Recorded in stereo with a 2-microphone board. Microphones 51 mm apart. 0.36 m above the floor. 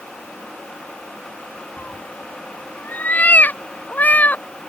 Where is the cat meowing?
35° left (ahead or behind); by 4.5 s 30° left (ahead or behind).